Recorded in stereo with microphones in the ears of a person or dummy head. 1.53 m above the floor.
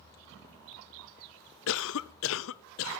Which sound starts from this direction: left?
A cough, at 1.7 s.